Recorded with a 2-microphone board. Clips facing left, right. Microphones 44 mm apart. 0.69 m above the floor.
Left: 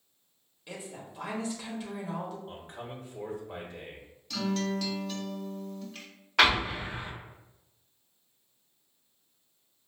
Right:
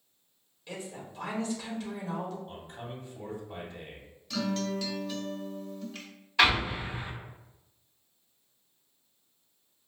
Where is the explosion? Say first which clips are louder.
Left 1 dB; 70° left (ahead or behind), 1.0 m.